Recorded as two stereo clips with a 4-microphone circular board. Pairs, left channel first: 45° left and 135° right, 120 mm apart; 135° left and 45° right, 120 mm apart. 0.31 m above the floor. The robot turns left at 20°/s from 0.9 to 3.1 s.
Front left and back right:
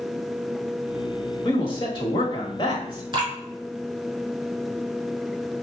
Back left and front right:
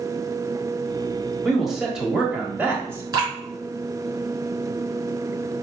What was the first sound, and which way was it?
A man speaking, 45° left.